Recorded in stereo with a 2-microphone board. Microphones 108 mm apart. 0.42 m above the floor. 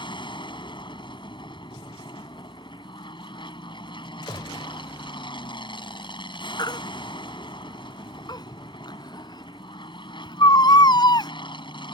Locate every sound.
0.0 s an aircraft: 50° left (ahead or behind)
4.3 s a gunshot: 50° left (ahead or behind)
6.6 s a baby crying: 45° left (ahead or behind)